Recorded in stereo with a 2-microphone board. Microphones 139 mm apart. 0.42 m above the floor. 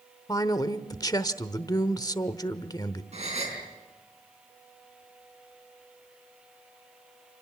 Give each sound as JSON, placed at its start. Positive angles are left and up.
{"t": 0.3, "sound": "a man speaking", "side_deg": 25, "distance_m": 1.0}
{"t": 3.1, "sound": "a gasp", "side_deg": -50, "distance_m": 4.5}